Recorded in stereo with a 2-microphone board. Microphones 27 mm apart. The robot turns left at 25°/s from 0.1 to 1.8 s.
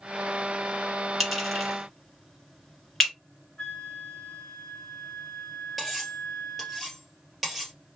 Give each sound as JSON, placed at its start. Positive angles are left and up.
{"t": 1.2, "sound": "a clink", "side_deg": 0, "distance_m": 1.5}
{"t": 3.6, "sound": "a flute", "side_deg": 35, "distance_m": 0.9}
{"t": 5.8, "sound": "cutlery clinking", "side_deg": 5, "distance_m": 1.8}